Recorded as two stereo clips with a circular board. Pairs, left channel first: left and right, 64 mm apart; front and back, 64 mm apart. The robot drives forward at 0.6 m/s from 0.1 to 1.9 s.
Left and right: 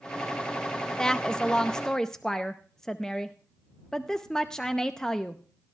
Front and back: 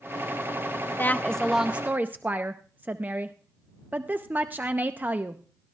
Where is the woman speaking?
15° left, 0.5 m; by 5.4 s 160° left, 0.5 m.